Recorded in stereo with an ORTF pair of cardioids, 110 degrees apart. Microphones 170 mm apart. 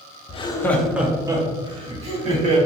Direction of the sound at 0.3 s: 35° left.